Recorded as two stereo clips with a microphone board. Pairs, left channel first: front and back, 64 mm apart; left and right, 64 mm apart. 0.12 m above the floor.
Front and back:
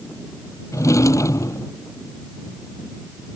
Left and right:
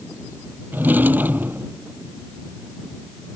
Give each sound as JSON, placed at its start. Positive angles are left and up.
{"t": 0.7, "sound": "a drawer", "azimuth_deg": -30}